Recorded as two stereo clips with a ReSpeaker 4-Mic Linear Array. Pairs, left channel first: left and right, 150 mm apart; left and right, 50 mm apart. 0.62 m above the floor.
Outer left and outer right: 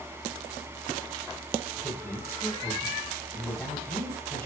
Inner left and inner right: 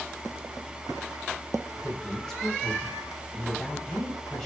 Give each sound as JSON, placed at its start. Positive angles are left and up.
{"t": 1.8, "sound": "a man speaking", "side_deg": 15, "distance_m": 5.5}